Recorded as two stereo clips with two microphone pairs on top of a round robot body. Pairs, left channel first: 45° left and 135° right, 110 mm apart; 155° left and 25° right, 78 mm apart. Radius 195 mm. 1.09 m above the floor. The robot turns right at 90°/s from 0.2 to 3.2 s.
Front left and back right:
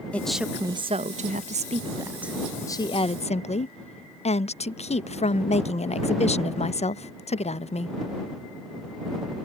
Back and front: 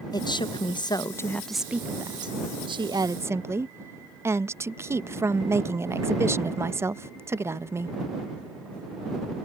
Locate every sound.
0.1 s a woman speaking: 120° left; by 8.0 s 30° left